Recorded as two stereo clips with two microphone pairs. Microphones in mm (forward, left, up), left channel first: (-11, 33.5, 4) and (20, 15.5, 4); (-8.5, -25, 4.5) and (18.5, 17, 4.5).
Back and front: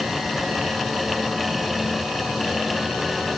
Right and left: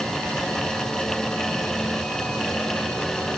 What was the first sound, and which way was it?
Only background noise.